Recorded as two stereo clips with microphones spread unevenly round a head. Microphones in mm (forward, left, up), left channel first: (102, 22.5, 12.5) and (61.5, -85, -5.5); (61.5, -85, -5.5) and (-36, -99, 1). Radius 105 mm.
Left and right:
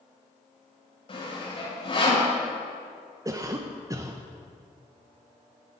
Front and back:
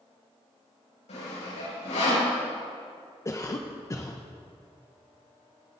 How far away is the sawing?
About 7 m.